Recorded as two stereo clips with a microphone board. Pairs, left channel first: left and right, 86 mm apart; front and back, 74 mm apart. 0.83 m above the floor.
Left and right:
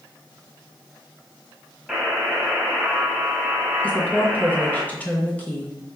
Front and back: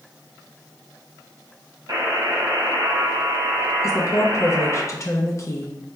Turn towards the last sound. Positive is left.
turn(degrees=25)